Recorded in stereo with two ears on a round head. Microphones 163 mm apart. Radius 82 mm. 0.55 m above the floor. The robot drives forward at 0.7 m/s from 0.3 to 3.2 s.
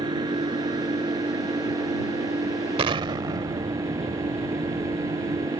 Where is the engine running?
25° right (ahead or behind); by 5.6 s 20° right (ahead or behind).